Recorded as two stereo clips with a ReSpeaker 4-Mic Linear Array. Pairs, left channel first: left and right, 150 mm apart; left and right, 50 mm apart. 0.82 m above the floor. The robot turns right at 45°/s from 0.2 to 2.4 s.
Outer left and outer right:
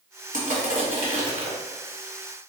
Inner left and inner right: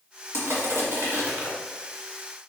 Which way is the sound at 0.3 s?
100° right.